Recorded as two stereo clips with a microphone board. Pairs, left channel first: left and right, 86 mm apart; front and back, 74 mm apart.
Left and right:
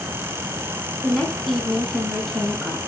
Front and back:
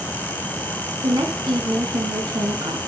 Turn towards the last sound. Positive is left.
turn(degrees=180)